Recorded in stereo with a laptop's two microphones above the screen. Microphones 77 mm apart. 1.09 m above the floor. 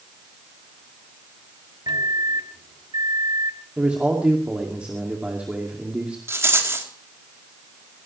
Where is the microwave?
75° right (ahead or behind), 1.6 m.